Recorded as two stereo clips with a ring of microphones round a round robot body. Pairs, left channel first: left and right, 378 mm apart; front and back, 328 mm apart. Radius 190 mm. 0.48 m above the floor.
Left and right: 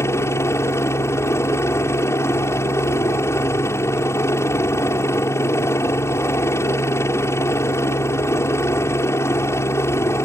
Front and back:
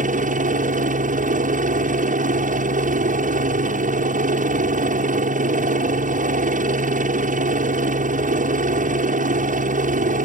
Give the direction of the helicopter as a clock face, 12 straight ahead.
7 o'clock.